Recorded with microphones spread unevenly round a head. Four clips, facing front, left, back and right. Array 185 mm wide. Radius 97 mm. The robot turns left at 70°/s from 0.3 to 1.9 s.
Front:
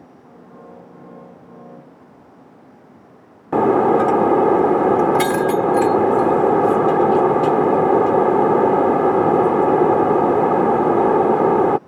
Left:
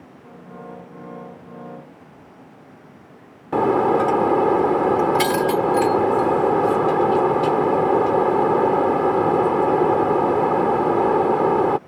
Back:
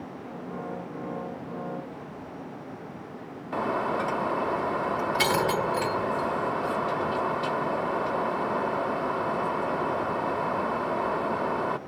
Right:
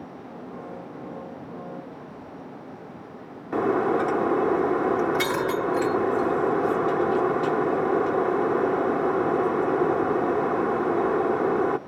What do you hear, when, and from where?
3.5 s breaking glass: 10° left